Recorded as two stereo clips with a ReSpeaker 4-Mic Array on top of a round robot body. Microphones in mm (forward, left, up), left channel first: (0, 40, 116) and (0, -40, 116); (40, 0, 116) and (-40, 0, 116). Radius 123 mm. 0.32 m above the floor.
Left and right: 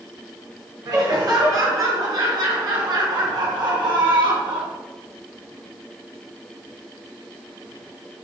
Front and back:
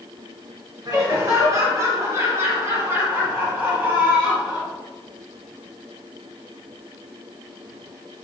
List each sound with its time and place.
0.8 s laughter: 130° right, 4.5 m; by 4.7 s 105° right, 3 m